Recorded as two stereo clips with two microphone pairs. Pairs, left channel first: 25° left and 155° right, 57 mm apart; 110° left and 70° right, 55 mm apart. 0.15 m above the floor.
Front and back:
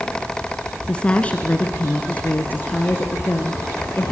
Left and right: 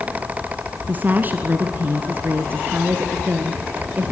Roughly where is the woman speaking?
Ahead right.